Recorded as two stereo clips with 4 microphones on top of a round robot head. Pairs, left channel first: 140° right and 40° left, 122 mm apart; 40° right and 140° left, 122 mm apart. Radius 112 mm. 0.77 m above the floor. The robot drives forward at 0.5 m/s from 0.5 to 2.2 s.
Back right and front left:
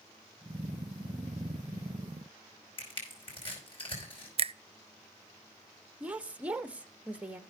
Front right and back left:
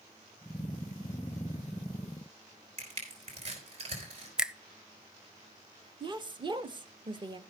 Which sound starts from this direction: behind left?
A woman speaking, at 6.0 s.